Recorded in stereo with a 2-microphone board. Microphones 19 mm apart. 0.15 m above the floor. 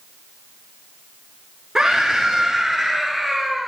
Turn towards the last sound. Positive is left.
turn(degrees=-10)  # may be behind; listen again after turning